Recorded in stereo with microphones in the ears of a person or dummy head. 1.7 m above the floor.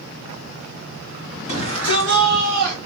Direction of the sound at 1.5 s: 35° left (ahead or behind).